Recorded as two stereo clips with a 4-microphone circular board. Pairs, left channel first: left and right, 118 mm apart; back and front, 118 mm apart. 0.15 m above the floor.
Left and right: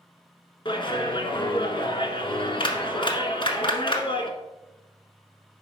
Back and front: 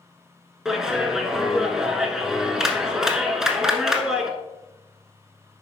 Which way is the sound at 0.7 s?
85° left.